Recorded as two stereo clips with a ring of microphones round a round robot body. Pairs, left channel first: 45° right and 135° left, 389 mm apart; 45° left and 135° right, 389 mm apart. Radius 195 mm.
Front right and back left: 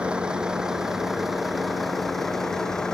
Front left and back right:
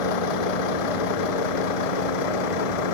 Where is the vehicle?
45° left.